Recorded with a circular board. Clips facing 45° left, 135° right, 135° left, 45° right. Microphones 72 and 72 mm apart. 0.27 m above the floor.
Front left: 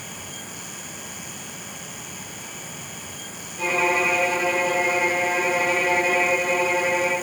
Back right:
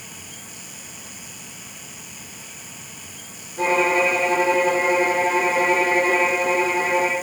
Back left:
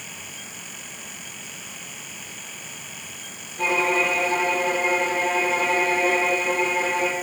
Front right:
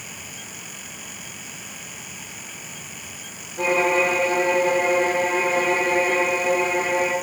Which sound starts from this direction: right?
A violin, at 3.6 s.